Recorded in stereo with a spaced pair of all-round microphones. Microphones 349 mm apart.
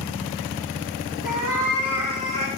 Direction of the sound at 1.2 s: 55° left (ahead or behind).